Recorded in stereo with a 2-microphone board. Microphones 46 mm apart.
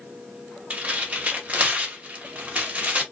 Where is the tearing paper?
30° right (ahead or behind), 0.9 m.